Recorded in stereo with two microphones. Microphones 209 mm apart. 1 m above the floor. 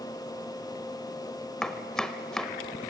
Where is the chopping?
5° left (ahead or behind), 1.0 m.